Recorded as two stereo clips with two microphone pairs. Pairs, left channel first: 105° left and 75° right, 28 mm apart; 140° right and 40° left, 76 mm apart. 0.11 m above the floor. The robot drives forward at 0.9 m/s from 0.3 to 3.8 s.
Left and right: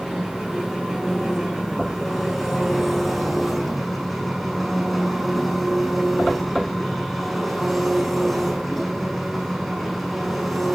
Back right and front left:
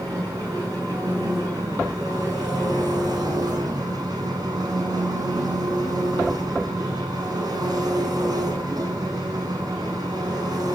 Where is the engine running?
10° left, 9.5 m; by 10.8 s 15° left, 6.5 m.